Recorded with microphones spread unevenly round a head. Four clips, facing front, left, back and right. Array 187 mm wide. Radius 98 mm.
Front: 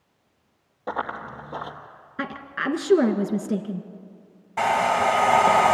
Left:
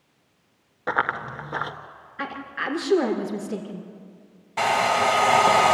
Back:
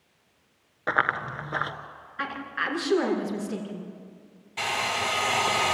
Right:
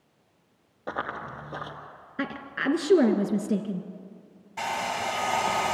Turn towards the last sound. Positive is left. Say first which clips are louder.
# left 9 dB, front 9 dB
turn(degrees=45)